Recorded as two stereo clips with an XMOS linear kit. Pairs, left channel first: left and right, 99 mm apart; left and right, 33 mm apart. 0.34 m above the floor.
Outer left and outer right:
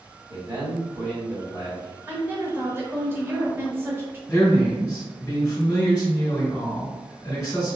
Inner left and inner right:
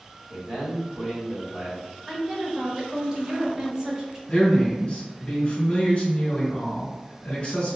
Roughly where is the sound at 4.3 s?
Left.